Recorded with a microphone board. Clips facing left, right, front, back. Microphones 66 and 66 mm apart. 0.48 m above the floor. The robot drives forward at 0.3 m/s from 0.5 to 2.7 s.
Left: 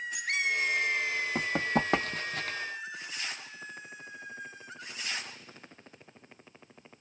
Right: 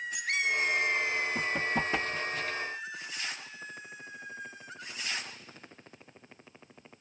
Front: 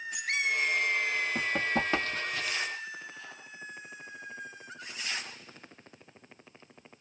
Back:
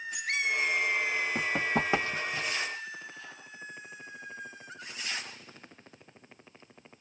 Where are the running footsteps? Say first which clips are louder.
Left 1 dB, back 1 dB; 100° left, 1.4 m; by 2.6 s 115° left, 0.8 m.